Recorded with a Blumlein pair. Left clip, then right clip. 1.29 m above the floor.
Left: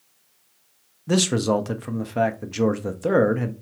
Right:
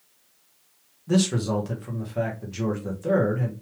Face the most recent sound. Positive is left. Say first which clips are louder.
# left 4 dB
turn(degrees=65)